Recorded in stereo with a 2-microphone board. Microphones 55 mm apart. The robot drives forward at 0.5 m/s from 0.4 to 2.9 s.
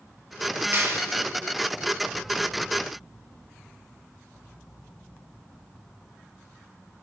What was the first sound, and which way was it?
A clap, 45° right (ahead or behind).